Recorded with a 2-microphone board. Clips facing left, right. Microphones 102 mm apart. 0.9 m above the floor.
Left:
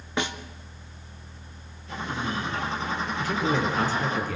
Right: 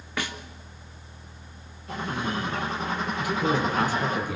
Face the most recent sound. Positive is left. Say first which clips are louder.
# even
turn(degrees=-15)  # may be behind; listen again after turning